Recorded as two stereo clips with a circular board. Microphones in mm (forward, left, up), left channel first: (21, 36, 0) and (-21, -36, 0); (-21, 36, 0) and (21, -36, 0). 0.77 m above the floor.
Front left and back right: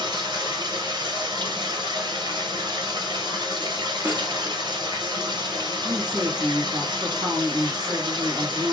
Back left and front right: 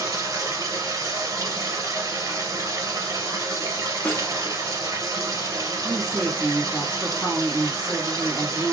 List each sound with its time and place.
0.0 s running water: 105° right, 1.3 m
4.0 s a snare drum: 175° right, 0.9 m
5.8 s a woman speaking: 145° right, 1.3 m